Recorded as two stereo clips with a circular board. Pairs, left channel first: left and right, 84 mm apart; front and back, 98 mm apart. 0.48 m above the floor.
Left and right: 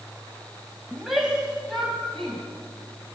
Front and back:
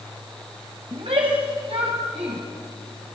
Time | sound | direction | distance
0.9 | a shout | 175° right | 3 m